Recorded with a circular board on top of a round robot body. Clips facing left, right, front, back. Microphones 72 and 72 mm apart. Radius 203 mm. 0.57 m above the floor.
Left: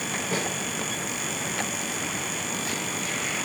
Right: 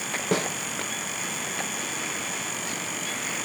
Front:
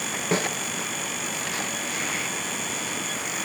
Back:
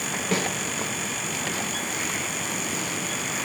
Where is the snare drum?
65° right, 0.7 m.